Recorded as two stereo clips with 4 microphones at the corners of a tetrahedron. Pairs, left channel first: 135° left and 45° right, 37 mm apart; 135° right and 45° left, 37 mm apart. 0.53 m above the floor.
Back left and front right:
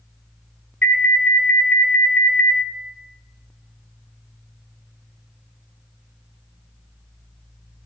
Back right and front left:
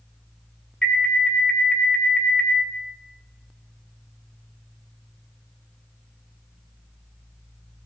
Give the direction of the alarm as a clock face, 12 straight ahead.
7 o'clock.